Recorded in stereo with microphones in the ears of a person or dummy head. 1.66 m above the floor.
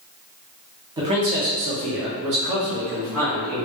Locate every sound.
1.0 s a man speaking: 20° right (ahead or behind), 0.6 m; by 3.6 s 70° right (ahead or behind), 1.7 m